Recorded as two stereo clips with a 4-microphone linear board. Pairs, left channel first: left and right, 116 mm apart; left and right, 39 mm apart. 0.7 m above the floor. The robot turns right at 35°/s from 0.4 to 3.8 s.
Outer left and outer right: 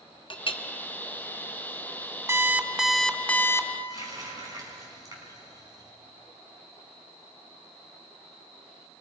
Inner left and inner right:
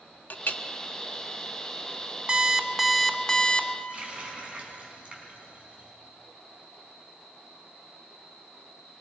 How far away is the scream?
No scream in this recording.